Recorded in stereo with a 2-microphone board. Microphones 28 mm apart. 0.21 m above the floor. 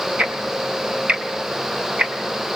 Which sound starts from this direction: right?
Ticking, at 0.2 s.